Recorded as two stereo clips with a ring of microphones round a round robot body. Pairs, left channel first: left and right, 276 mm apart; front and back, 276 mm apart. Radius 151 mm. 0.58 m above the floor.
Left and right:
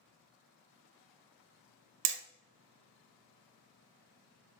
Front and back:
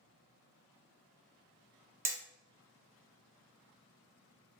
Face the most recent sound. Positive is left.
turn(degrees=-100)